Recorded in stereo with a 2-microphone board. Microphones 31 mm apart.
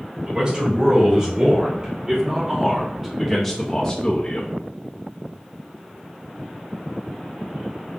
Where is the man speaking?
35° right (ahead or behind), 2.5 m; by 4.6 s 55° left (ahead or behind), 0.7 m.